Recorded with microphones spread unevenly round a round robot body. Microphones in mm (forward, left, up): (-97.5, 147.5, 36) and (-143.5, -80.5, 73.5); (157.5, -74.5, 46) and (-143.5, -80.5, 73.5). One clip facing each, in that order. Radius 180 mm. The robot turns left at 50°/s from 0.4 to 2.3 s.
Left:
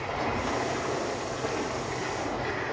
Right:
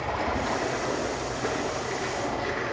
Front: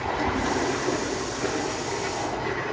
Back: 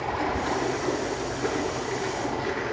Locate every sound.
0.0 s running water: 40° right, 7 m; by 2.7 s 135° right, 7 m